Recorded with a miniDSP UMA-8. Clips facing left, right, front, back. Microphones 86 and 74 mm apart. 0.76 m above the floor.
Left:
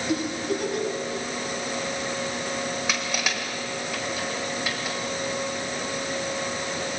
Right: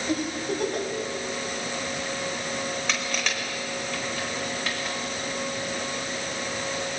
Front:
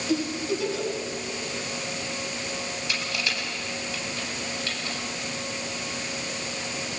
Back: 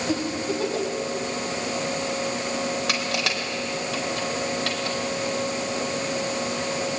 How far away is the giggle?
About 5.5 m.